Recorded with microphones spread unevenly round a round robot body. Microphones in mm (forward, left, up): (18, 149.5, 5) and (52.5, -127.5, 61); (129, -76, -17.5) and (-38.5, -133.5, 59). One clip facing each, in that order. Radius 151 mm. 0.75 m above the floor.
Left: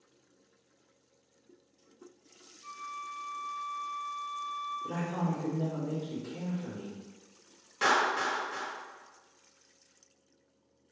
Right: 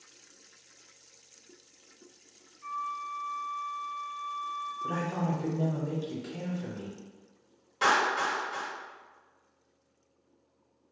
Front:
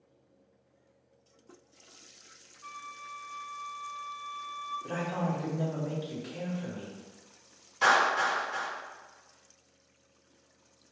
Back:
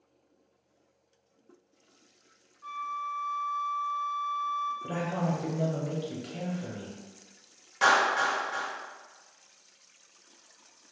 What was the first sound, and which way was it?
A flute, 110° right.